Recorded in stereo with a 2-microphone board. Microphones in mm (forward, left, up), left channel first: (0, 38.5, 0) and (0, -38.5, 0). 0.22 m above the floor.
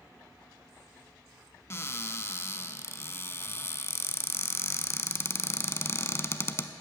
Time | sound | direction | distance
1.7 | a cupboard door | 35° left (ahead or behind) | 0.6 m